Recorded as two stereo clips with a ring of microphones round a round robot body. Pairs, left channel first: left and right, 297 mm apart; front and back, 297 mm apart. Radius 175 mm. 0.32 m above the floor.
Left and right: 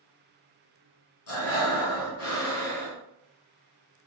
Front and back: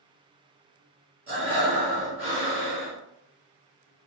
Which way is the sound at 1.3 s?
95° left.